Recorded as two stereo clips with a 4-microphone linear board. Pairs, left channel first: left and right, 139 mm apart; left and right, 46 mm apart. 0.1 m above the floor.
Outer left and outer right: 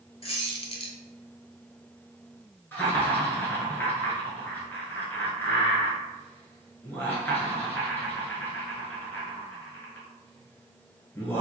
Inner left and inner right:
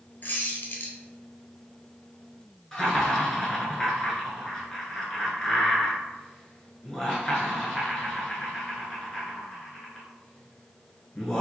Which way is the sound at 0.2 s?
45° left (ahead or behind).